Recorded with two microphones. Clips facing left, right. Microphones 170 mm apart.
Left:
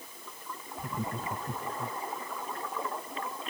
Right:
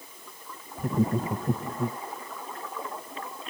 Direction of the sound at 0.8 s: 45° right (ahead or behind).